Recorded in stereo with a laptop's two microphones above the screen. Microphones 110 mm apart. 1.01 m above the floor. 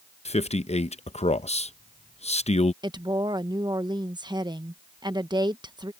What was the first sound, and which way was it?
A man speaking, 70° left (ahead or behind).